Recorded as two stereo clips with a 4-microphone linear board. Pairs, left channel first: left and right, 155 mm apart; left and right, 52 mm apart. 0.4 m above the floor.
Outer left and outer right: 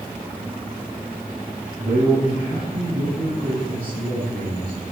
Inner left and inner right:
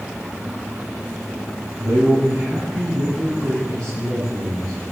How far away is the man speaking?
About 6 m.